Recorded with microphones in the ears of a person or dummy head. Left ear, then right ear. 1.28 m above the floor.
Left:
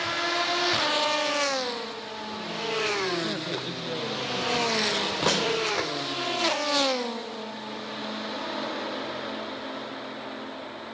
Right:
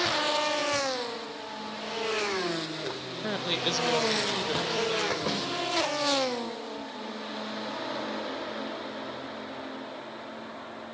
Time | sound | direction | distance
3.2 | a woman speaking | 85° right | 0.9 m
5.3 | a snare drum | 40° left (ahead or behind) | 3.5 m